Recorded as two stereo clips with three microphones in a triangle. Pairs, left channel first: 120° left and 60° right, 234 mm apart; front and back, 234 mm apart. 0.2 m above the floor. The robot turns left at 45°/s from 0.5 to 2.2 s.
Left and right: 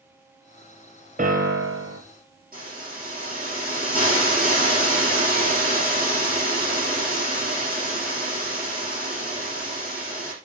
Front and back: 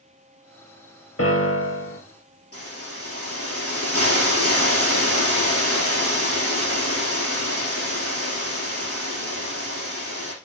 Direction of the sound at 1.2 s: 5° right.